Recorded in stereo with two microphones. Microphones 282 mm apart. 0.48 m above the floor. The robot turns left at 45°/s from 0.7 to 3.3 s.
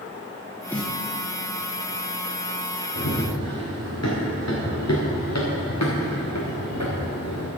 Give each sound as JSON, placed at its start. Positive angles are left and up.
{"t": 0.7, "sound": "a snare drum", "side_deg": 5, "distance_m": 0.7}
{"t": 3.0, "sound": "running footsteps", "side_deg": 80, "distance_m": 4.5}